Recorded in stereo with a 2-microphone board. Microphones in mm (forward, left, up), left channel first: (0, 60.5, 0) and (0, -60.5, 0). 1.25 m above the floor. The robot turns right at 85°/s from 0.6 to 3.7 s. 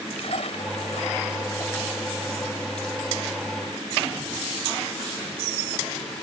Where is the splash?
65° left (ahead or behind); by 2.7 s 60° right (ahead or behind).